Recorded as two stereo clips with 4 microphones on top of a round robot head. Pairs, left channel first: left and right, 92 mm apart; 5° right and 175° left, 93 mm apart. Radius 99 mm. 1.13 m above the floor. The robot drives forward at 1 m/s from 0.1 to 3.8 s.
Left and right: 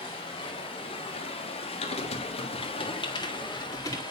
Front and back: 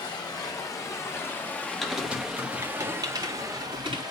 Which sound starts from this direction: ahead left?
Running water, at 0.0 s.